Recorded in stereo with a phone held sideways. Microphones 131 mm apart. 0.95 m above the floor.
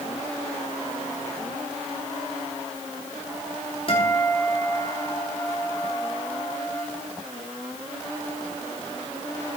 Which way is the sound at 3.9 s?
45° left (ahead or behind).